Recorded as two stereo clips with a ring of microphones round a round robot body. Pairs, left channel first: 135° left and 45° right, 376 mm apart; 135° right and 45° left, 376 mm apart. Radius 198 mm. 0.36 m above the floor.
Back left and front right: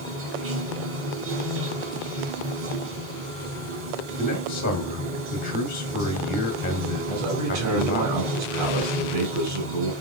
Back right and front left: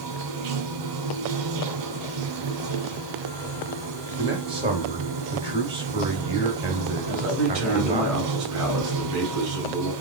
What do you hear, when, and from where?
0.0 s running water: 15° left, 1.1 m
4.2 s a man speaking: 105° left, 0.9 m
7.1 s a man speaking: straight ahead, 2.5 m